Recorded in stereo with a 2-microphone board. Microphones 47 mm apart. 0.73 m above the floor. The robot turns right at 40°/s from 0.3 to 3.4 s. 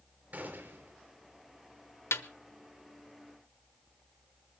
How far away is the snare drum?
About 0.8 m.